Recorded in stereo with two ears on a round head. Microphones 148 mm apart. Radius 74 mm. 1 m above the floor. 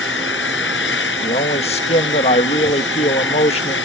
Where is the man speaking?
40° left (ahead or behind).